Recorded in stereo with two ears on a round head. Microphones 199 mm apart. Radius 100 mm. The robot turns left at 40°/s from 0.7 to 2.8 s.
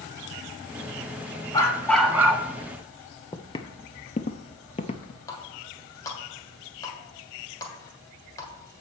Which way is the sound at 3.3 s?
20° left (ahead or behind).